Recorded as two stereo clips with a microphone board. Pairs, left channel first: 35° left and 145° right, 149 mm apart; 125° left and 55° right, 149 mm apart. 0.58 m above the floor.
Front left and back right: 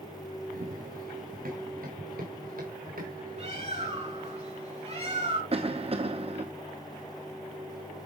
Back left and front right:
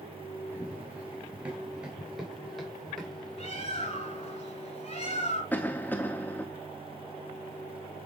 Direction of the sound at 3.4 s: 170° left.